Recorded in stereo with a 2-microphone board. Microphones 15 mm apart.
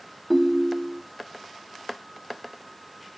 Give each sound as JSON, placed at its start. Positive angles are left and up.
{"t": 0.3, "sound": "a ringtone", "side_deg": -10, "distance_m": 0.8}